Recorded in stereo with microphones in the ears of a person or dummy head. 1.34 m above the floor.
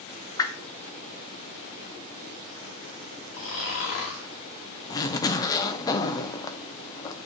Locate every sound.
0.4 s a whoosh: 25° left (ahead or behind), 0.7 m
3.3 s snoring: 50° left (ahead or behind), 2 m
4.9 s a zipper: 15° left (ahead or behind), 0.5 m